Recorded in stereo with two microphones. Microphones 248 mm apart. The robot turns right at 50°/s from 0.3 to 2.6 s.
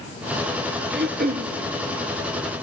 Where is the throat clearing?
50° right (ahead or behind), 0.9 m; by 1.5 s 30° right (ahead or behind), 0.9 m.